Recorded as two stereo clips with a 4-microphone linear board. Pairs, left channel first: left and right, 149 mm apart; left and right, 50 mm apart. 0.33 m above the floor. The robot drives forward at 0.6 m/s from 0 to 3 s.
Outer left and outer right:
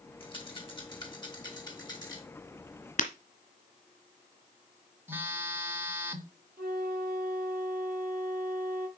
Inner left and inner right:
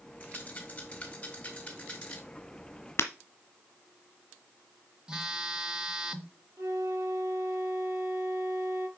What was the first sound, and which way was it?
A rattle, 35° left (ahead or behind).